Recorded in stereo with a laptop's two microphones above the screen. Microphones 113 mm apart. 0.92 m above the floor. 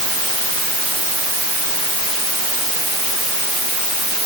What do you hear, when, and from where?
Only background noise.